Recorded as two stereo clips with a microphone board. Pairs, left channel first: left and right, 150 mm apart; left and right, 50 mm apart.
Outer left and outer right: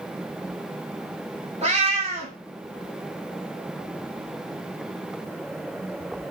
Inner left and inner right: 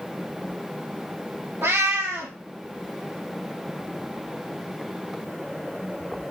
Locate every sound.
1.6 s a cat meowing: 50° right (ahead or behind), 0.7 m